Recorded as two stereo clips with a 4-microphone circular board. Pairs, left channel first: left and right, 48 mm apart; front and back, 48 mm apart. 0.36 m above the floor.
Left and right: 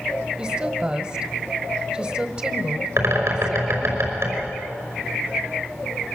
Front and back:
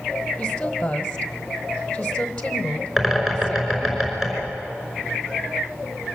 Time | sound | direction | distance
0.4 | a woman speaking | 60° right | 1.2 m
3.0 | a bird | 95° right | 5 m